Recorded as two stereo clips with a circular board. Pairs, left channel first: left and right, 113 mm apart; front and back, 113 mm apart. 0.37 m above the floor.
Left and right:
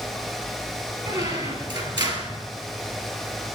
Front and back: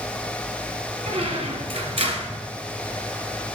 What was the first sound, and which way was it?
A squeak, 145° right.